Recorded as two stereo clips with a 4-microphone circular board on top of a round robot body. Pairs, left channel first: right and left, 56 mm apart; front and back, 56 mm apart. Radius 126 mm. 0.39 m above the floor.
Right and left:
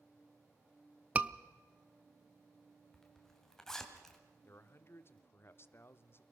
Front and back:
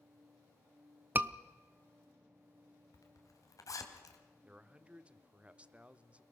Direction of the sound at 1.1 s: 145° left.